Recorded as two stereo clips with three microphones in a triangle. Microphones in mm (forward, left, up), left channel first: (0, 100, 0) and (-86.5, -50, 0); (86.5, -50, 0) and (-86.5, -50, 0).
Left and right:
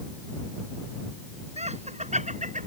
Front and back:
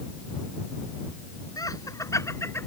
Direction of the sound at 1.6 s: 70° right.